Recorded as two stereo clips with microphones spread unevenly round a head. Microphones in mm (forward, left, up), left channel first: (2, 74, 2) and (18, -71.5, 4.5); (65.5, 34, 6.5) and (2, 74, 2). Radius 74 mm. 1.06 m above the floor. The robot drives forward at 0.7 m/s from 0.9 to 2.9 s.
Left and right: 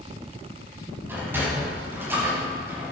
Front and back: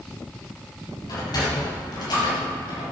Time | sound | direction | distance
1.1 | a sliding door | 10° right | 6 m